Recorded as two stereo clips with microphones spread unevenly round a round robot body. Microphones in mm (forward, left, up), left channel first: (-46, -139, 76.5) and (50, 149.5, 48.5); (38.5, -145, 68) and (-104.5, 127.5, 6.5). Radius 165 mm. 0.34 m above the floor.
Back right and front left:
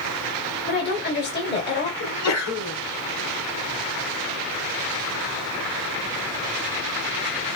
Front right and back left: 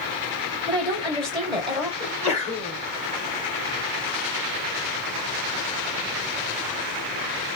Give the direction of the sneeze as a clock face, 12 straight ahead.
4 o'clock.